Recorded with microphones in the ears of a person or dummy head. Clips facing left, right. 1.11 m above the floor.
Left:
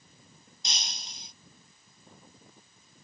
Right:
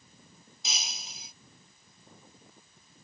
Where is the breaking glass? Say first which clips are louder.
Even; centre (ahead or behind).